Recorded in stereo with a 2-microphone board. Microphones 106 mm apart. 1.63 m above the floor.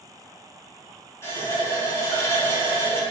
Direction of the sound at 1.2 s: 25° left (ahead or behind).